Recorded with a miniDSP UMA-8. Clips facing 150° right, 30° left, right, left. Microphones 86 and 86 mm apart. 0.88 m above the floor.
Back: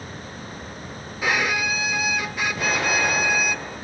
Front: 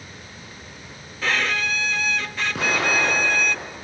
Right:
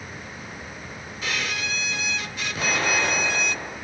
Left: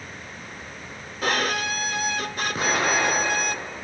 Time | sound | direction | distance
1.2 | a violin | 135° left | 0.5 m
2.5 | an explosion | 40° left | 8.5 m